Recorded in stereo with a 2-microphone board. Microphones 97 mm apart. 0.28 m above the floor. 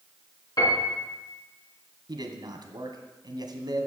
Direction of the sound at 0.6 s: 50° left (ahead or behind).